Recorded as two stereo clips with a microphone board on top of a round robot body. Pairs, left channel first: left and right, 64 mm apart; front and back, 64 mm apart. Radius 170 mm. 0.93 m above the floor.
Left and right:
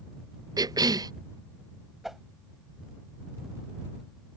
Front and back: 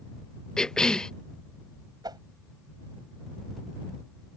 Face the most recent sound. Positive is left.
turn(degrees=-175)